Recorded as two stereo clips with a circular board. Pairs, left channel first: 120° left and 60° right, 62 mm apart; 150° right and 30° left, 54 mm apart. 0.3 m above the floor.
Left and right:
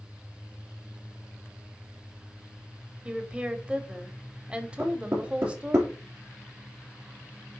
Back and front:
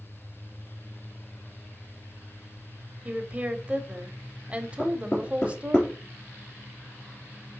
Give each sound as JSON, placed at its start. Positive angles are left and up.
{"t": 3.0, "sound": "a woman speaking", "azimuth_deg": -10, "distance_m": 0.9}
{"t": 4.8, "sound": "knocking", "azimuth_deg": -105, "distance_m": 3.5}